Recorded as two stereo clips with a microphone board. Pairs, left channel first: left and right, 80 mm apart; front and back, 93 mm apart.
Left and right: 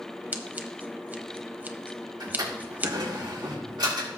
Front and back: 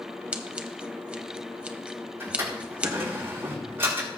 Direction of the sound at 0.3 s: 120° right.